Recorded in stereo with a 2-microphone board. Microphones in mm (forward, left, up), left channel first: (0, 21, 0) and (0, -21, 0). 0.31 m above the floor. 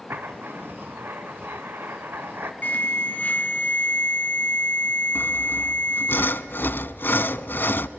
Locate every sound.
0.1 s writing: 60° right (ahead or behind), 1.2 m
2.6 s an alarm: 40° left (ahead or behind), 3.5 m
5.2 s sawing: 60° left (ahead or behind), 0.5 m